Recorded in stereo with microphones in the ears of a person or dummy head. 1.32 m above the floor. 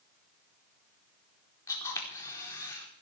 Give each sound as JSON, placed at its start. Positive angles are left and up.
{"t": 1.7, "sound": "a camera shutter", "side_deg": 20, "distance_m": 4.5}